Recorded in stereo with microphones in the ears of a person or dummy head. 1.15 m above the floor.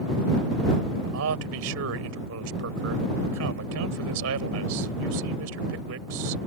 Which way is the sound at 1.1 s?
75° right (ahead or behind).